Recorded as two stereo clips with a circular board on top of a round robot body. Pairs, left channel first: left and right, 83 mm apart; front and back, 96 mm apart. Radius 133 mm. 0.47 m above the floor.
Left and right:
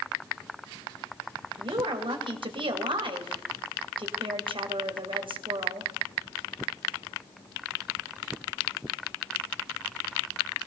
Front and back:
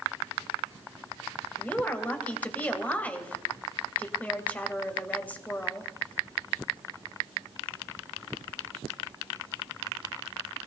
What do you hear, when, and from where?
1.6 s a woman speaking: 75° right, 3 m